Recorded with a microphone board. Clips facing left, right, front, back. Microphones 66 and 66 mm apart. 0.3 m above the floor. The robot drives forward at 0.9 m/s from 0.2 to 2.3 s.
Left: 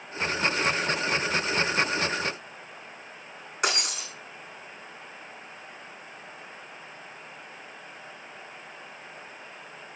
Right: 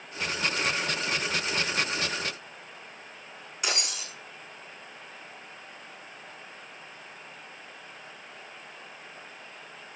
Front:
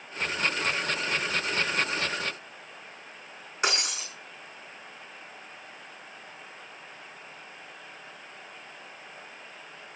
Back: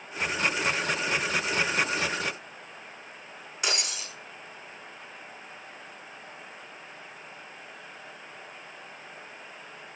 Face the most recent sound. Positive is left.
turn(degrees=60)